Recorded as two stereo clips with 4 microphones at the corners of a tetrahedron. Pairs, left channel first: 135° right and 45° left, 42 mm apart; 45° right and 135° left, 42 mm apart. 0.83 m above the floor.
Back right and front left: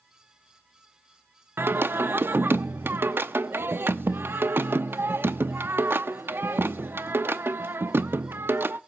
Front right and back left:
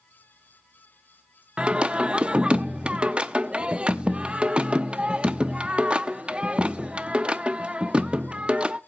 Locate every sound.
1.6 s singing: 70° left, 0.7 m